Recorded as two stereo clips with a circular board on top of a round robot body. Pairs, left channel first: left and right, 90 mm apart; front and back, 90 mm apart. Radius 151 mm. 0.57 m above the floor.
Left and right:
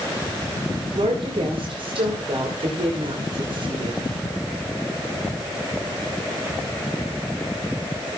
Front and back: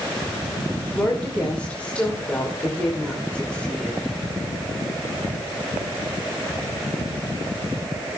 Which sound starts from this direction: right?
A woman speaking, at 0.9 s.